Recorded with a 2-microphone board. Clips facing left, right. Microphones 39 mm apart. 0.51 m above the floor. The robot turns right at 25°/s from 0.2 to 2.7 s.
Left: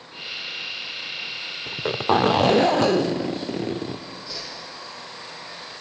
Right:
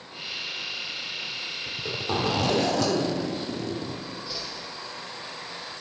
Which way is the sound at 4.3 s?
10° right (ahead or behind).